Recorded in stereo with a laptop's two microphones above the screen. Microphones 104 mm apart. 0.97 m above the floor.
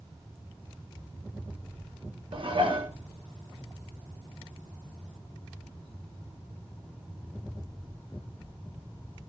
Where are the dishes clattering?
55° right (ahead or behind), 1.2 m.